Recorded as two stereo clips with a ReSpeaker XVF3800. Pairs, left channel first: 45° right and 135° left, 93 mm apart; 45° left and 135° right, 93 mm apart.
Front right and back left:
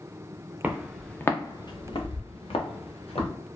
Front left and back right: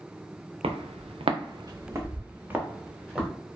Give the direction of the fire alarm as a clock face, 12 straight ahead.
No fire alarm in this recording.